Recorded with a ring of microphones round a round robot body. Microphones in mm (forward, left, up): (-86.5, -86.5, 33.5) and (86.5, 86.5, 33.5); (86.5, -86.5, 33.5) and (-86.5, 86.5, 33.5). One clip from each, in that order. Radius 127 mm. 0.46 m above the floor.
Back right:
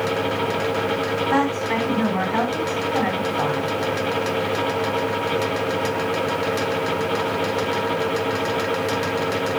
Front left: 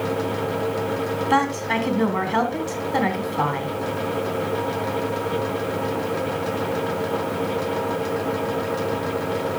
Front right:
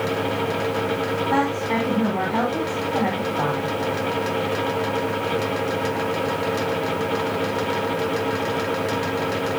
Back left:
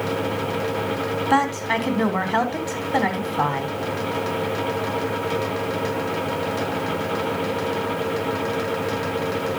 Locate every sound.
1.3 s a woman speaking: 120° left, 3.5 m